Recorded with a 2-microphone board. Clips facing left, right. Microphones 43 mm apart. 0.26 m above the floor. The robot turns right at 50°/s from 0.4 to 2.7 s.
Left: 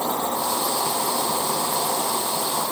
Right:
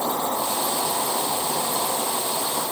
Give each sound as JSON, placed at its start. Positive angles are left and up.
{"t": 0.0, "sound": "an insect", "azimuth_deg": 35, "distance_m": 2.0}